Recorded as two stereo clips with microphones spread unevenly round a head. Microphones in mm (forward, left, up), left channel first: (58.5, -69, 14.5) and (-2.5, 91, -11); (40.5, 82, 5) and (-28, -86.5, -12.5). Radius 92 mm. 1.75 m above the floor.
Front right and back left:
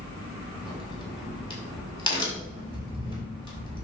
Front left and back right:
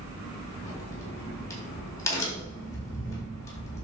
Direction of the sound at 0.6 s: 5° right.